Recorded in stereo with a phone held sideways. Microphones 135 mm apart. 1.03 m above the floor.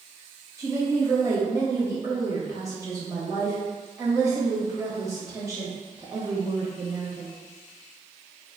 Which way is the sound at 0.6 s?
25° right (ahead or behind).